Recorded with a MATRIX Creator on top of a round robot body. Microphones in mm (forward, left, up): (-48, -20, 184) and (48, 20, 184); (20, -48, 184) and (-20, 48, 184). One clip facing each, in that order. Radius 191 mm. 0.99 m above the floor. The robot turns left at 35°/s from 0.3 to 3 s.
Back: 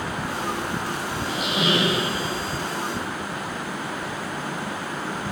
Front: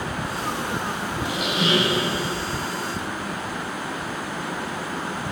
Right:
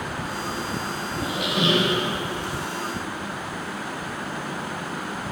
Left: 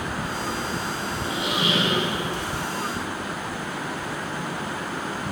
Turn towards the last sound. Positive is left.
turn(degrees=-120)